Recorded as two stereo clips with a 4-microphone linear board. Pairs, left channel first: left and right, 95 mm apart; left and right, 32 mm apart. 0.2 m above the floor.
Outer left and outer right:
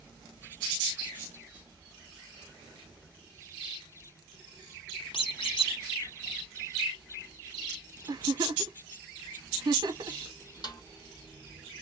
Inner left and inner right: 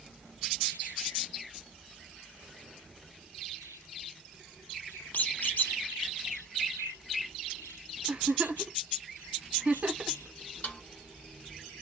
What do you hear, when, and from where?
5.1 s a squeak: 65° left (ahead or behind), 1.1 m
8.1 s a giggle: 45° right (ahead or behind), 0.6 m
10.6 s a snare drum: 45° left (ahead or behind), 1.4 m